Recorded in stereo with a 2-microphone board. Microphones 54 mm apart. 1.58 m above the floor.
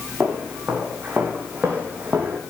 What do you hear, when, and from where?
0.2 s footsteps: 30° right (ahead or behind), 7.5 m; by 2.4 s 40° right (ahead or behind), 5 m